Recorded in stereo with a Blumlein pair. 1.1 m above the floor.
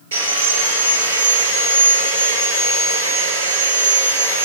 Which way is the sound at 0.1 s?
70° right.